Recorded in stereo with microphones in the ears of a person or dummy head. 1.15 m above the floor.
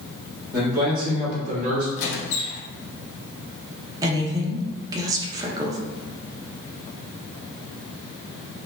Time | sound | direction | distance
0.5 | a man speaking | 20° right (ahead or behind) | 1.8 m
2.0 | a squeak | 65° left (ahead or behind) | 0.9 m
4.0 | a woman speaking | 20° right (ahead or behind) | 0.6 m